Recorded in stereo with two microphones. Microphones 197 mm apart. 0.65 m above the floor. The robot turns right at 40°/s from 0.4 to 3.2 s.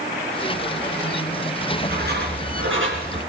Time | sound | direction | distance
1.6 | writing | 140° right | 5 m